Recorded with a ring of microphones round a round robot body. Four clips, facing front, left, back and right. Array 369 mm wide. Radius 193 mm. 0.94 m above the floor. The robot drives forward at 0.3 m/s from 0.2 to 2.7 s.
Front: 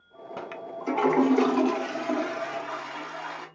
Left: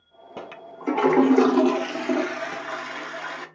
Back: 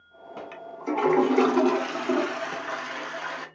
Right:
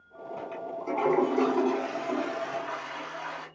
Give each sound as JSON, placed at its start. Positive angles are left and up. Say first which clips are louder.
{"t": 0.4, "sound": "a toilet flushing", "louder": "right 2 dB, front 2 dB", "azimuth_deg": 70, "distance_m": 0.6}